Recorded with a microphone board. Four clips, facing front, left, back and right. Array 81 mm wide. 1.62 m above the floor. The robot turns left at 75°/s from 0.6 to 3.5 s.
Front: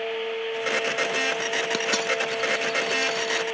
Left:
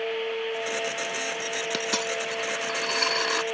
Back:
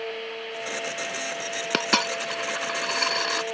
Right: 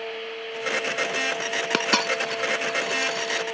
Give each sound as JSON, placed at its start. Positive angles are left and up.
{"t": 1.7, "sound": "a dropped coin", "azimuth_deg": -120}